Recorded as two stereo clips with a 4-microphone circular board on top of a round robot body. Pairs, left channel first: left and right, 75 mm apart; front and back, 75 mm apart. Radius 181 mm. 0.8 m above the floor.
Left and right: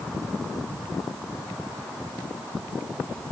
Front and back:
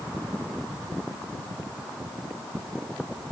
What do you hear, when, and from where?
Only background noise.